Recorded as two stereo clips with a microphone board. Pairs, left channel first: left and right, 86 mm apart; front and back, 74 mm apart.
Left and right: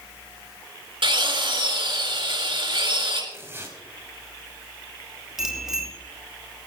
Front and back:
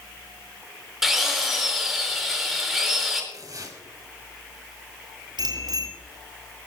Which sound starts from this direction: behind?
A bicycle bell, at 5.4 s.